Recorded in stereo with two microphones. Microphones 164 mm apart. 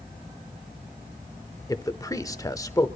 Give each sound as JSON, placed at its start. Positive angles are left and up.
{"t": 1.7, "sound": "a man speaking", "side_deg": 20, "distance_m": 0.8}